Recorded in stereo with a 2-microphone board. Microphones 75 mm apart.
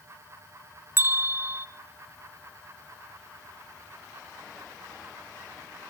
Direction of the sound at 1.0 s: 30° right (ahead or behind).